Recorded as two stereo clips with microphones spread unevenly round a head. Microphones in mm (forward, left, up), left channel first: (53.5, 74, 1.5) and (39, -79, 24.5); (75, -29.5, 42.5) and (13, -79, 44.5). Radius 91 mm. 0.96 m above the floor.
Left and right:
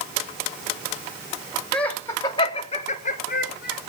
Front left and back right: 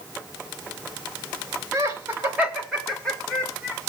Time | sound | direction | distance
1.7 | laughter | 165° left | 1.6 m